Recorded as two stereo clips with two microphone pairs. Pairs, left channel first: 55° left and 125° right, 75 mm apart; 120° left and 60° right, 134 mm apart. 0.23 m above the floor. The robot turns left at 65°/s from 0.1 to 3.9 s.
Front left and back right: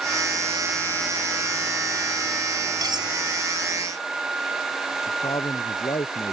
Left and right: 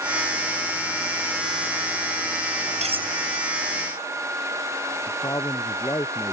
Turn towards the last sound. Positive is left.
turn(degrees=60)